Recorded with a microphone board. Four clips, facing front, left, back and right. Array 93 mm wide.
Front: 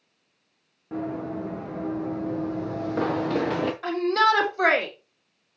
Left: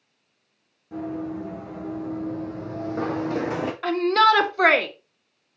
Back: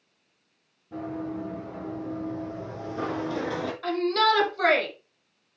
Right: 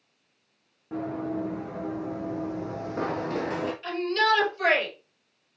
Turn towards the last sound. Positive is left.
turn(degrees=80)